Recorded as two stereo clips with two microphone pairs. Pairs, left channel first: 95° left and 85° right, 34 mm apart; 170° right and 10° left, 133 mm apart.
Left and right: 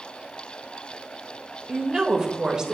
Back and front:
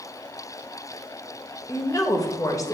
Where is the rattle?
No rattle in this recording.